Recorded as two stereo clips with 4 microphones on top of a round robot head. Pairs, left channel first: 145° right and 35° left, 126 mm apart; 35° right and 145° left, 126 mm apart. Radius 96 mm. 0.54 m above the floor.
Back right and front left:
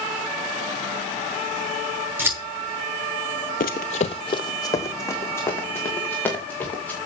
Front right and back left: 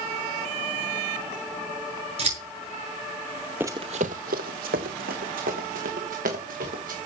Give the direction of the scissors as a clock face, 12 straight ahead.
8 o'clock.